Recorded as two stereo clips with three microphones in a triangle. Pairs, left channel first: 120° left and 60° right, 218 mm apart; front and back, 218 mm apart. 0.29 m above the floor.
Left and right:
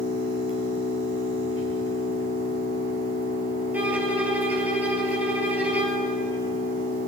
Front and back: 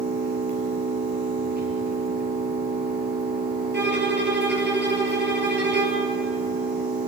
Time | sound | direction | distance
0.0 | an engine running | 140° left | 5.5 m
3.7 | a violin | 145° right | 3.5 m